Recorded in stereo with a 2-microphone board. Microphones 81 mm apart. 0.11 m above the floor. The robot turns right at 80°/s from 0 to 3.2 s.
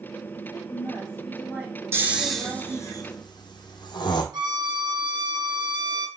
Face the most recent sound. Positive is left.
turn(degrees=-65)  # may be behind; listen again after turning